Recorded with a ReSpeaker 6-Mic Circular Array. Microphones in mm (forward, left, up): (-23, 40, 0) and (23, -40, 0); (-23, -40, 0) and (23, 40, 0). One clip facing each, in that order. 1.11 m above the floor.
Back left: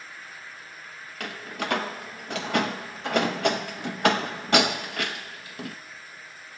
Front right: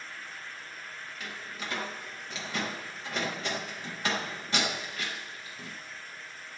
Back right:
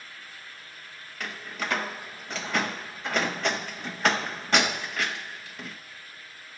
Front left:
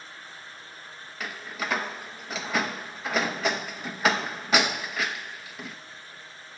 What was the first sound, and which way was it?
A door slam, 145° left.